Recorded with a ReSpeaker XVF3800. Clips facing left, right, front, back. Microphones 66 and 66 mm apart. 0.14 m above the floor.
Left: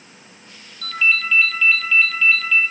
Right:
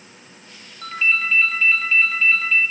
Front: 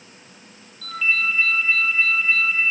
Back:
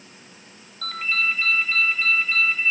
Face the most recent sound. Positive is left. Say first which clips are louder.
# left 1 dB, front 2 dB
turn(degrees=-155)